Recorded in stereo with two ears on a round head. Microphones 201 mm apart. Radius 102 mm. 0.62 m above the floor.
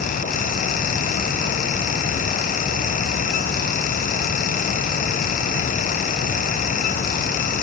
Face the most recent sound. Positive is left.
No sound to turn to.